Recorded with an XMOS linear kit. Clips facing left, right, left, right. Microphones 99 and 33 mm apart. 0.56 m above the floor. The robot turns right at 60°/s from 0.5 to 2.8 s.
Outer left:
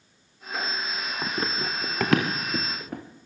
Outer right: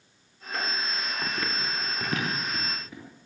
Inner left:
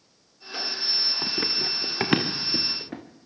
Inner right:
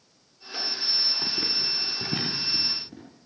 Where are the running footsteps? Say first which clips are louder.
Outer left 4 dB, inner left 1 dB; 20° left (ahead or behind), 4.5 m; by 3.0 s 55° left (ahead or behind), 5.5 m.